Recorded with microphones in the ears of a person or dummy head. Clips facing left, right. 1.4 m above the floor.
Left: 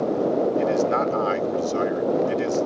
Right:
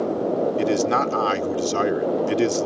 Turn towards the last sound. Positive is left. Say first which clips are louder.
# even
turn(degrees=-70)  # may be behind; listen again after turning